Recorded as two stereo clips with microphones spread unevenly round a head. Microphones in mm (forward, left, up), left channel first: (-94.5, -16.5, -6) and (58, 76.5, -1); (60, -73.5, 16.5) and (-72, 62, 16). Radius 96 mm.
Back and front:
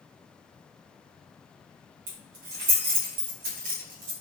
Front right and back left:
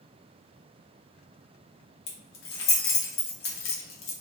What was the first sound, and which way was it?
Keys jangling, 20° right.